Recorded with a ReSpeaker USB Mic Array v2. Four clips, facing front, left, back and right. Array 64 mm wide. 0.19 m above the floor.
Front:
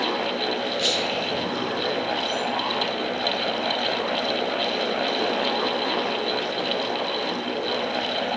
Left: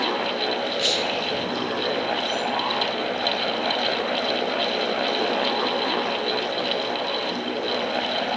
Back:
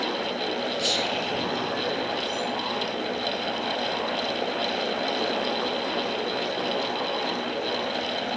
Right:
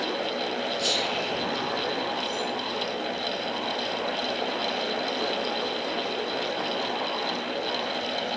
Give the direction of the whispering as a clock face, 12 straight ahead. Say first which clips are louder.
Left 3 dB, front 2 dB; 10 o'clock.